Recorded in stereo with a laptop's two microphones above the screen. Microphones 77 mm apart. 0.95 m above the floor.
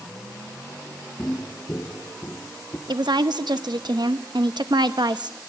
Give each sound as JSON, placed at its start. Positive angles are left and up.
{"t": 1.2, "sound": "footsteps", "side_deg": 15, "distance_m": 1.1}
{"t": 2.9, "sound": "a woman speaking", "side_deg": -70, "distance_m": 0.9}